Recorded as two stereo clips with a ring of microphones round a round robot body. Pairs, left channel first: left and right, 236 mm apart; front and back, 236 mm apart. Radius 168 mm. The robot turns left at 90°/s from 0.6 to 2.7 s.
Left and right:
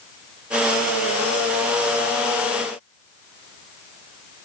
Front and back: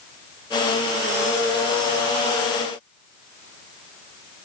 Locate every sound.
Only background noise.